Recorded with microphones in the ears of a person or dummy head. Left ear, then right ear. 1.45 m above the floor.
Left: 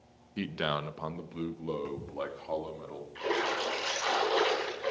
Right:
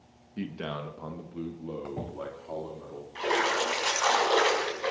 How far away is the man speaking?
About 1.0 m.